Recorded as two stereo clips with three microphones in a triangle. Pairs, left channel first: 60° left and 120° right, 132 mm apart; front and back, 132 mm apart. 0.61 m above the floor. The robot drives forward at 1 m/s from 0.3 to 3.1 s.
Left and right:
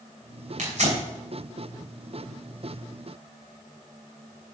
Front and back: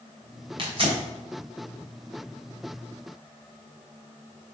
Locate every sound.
0.6 s tearing paper: 135° right, 2.5 m; by 1.0 s 140° right, 3 m